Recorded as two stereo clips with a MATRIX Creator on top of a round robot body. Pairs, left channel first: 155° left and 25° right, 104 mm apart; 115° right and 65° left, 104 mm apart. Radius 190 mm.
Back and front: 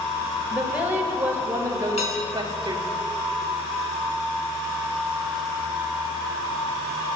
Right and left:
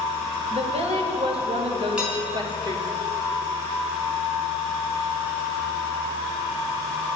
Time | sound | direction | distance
0.5 | a woman speaking | 55° left | 2.5 m
2.0 | dishes clattering | 150° left | 3 m